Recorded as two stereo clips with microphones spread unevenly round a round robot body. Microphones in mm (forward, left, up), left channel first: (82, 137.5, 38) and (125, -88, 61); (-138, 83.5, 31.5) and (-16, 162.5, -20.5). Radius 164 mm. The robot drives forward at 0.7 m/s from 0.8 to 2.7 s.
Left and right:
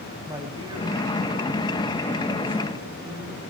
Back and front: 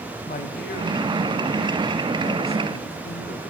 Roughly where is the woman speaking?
Behind right.